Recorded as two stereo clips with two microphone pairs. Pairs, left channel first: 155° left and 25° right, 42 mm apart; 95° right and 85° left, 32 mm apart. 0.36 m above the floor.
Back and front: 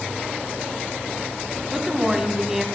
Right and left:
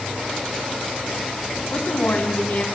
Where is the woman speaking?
100° right, 2.5 m.